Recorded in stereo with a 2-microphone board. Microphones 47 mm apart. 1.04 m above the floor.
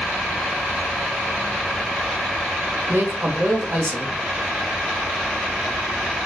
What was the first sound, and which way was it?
A man speaking, 55° right (ahead or behind).